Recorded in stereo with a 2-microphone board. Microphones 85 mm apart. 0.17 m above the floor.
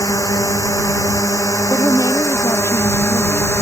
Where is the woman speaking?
35° left (ahead or behind).